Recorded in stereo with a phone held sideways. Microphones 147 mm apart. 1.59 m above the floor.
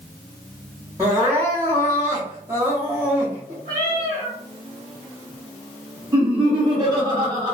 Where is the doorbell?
No doorbell in this recording.